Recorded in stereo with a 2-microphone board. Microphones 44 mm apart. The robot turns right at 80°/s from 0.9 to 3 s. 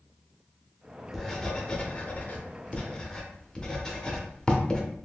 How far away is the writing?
About 0.6 m.